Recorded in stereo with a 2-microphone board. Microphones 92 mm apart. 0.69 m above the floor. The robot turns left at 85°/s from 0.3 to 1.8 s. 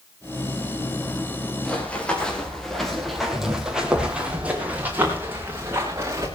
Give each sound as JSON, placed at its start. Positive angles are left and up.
{"t": 1.6, "sound": "running footsteps", "side_deg": 5, "distance_m": 7.5}